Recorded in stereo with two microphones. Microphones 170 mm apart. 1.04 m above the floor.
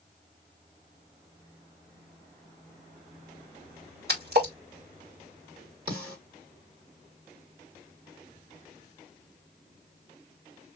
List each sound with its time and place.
4.1 s a splash: 70° right (ahead or behind), 2 m
5.9 s a snare drum: 60° right (ahead or behind), 4.5 m